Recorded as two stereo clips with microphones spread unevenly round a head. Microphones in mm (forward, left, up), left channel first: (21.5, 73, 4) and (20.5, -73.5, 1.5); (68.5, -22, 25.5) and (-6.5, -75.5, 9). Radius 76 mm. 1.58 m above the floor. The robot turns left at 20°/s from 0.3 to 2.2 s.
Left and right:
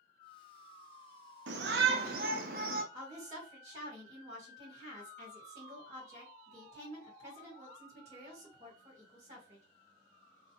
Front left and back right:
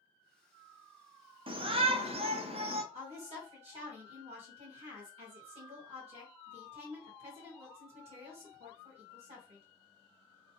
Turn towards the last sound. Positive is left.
turn(degrees=-140)